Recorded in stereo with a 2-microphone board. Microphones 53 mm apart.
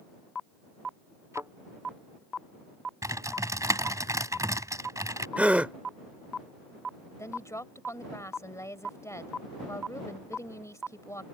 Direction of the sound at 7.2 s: 65° left (ahead or behind).